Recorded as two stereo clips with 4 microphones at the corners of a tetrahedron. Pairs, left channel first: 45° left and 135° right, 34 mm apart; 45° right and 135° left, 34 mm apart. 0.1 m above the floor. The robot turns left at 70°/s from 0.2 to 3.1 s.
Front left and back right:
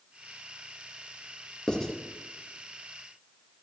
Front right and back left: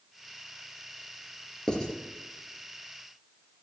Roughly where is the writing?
Ahead.